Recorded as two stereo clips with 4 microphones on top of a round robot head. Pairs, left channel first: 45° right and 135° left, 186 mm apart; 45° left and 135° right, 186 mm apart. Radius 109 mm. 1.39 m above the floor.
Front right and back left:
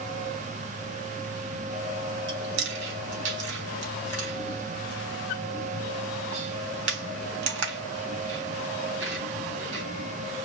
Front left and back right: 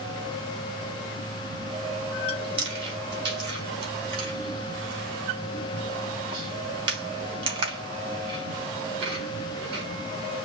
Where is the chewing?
160° left, 3 m.